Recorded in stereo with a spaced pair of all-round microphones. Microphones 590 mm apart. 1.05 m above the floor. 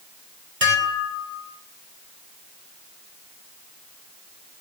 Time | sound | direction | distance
0.6 | dishes clattering | 70° right (ahead or behind) | 3 m